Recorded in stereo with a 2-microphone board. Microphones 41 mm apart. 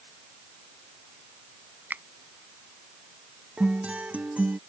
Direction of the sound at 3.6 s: 35° right (ahead or behind).